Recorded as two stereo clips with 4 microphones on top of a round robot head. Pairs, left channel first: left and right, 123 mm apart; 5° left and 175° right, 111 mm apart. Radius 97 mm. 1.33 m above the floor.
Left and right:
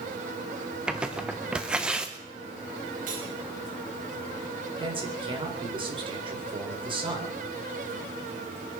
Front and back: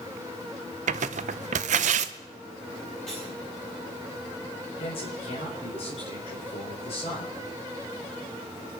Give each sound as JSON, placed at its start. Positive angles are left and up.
{"t": 0.9, "sound": "tearing paper", "azimuth_deg": -175, "distance_m": 0.5}
{"t": 3.1, "sound": "cutlery clinking", "azimuth_deg": -80, "distance_m": 7.0}
{"t": 4.8, "sound": "a man speaking", "azimuth_deg": -45, "distance_m": 4.5}